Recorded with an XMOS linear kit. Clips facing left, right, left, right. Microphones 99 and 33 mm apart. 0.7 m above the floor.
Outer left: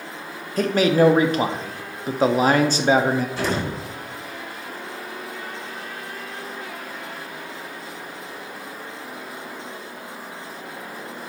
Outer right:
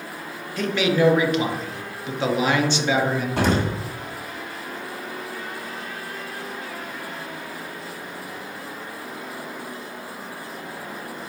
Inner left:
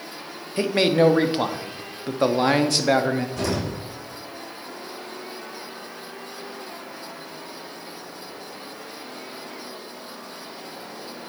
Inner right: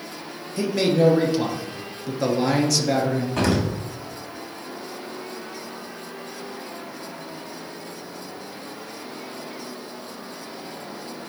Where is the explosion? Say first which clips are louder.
Outer right 3 dB, inner right 4 dB; 70° right (ahead or behind), 1.4 m.